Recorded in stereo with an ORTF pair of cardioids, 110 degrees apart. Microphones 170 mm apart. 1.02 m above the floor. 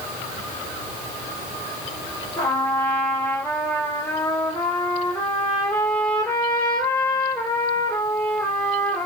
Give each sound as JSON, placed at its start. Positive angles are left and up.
{"t": 2.4, "sound": "a trumpet", "azimuth_deg": 10, "distance_m": 2.0}